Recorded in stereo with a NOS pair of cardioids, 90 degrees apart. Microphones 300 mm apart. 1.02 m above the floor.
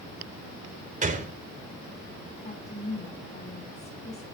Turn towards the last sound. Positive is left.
turn(degrees=20)